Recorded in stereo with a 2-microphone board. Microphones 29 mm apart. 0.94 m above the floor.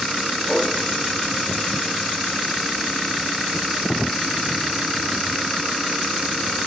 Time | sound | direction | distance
0.5 | a whoosh | 25° right (ahead or behind) | 3.5 m